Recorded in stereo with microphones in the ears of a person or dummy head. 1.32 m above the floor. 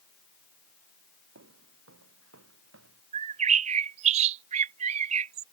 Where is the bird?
40° right (ahead or behind).